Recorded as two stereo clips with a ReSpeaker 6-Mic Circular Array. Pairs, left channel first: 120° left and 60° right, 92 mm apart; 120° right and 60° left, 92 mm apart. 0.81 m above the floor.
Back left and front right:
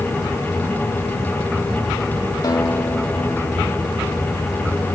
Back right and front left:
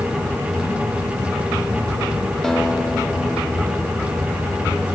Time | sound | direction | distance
2.4 | a guitar | 155° left | 1.7 m